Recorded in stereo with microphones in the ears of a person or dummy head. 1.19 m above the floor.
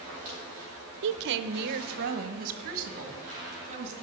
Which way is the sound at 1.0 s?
60° right (ahead or behind).